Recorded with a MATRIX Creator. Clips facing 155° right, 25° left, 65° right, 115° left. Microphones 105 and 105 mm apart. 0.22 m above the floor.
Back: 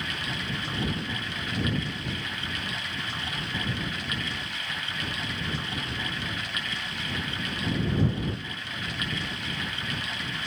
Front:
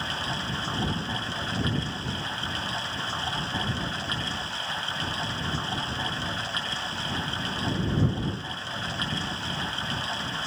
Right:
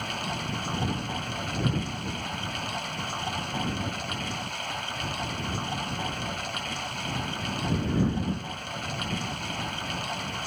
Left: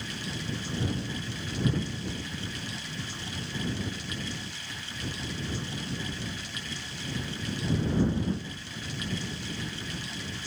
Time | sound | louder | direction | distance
0.0 | running water | front 2 dB, right 4 dB | 35° right | ?